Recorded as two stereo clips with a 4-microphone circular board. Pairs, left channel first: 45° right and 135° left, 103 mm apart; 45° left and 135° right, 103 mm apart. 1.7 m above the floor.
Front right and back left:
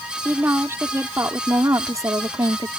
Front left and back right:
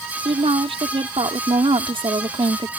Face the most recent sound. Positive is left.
turn(degrees=-175)